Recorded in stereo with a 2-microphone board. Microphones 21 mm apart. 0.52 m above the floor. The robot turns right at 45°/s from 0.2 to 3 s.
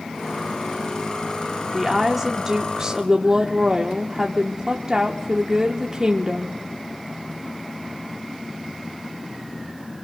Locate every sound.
1.7 s a woman speaking: 160° right, 0.8 m; by 6.6 s 105° right, 0.8 m